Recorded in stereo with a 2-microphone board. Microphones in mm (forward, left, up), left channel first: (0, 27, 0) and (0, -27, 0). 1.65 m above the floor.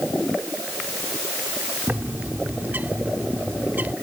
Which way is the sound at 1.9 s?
35° right (ahead or behind).